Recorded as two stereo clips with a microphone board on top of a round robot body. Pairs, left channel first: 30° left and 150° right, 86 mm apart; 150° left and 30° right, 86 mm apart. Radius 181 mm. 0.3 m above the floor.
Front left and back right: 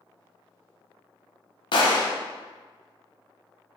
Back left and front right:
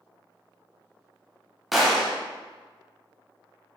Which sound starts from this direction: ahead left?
A gunshot, at 1.7 s.